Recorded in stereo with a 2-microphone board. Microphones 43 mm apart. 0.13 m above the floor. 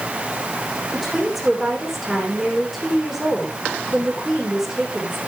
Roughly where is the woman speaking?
Centre.